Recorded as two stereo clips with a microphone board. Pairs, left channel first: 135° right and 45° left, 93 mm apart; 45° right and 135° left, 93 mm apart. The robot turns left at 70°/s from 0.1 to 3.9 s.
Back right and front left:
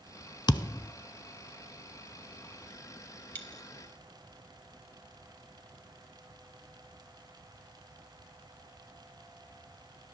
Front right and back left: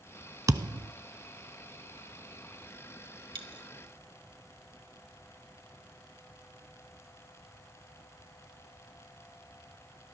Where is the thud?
175° right, 0.5 m; by 0.9 s 155° left, 0.5 m.